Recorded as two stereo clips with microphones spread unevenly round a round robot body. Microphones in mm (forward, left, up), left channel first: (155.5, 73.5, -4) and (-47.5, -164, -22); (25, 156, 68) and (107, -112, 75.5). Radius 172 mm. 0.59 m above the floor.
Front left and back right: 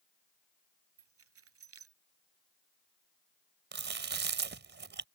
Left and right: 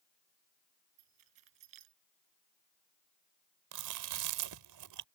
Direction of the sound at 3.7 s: 75° right.